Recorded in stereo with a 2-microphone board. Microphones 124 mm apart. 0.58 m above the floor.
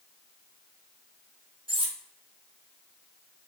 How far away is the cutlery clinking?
About 0.7 m.